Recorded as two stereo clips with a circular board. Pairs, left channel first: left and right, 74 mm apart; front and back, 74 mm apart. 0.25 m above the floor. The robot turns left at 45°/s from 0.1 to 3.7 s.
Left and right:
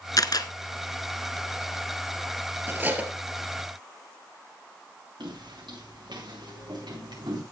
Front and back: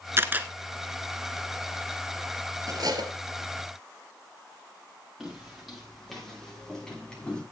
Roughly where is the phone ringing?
I don't hear a phone ringing.